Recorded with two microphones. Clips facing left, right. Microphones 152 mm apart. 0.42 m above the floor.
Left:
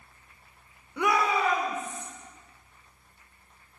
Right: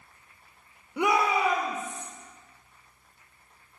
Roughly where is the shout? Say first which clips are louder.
Right 1 dB; centre.